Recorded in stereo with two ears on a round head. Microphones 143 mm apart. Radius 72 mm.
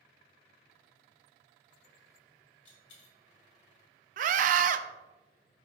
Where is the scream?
50° right (ahead or behind), 0.6 m.